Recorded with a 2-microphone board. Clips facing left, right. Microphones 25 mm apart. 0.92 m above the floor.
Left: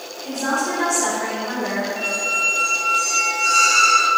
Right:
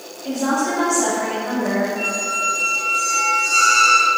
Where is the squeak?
15° left (ahead or behind), 1.5 m.